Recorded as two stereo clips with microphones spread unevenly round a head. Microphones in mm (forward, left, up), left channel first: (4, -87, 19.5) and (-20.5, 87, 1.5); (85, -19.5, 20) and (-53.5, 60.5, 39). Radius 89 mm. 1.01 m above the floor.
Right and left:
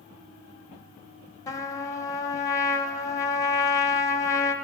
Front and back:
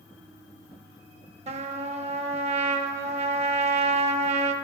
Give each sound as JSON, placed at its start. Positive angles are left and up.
{"t": 1.5, "sound": "a trumpet", "azimuth_deg": -155, "distance_m": 0.9}